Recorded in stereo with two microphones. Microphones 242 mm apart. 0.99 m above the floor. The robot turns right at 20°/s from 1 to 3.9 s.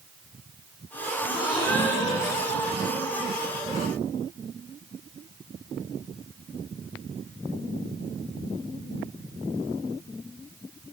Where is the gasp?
5° right, 2 m; by 3.1 s 30° left, 2 m.